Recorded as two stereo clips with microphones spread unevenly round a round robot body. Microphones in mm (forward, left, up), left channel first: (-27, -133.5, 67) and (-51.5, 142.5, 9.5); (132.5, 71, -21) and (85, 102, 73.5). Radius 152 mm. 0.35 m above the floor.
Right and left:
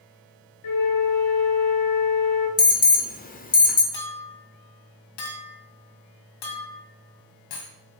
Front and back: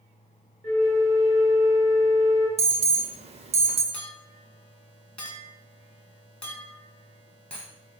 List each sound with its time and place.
0.6 s a flute: 100° right, 3.5 m
2.6 s an alarm: 135° right, 0.9 m
3.9 s a clink: 65° right, 2 m